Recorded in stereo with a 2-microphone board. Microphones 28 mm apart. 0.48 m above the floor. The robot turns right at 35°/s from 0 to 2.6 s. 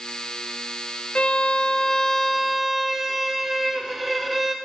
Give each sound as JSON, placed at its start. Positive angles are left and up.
{"t": 1.1, "sound": "a violin", "azimuth_deg": 130, "distance_m": 0.6}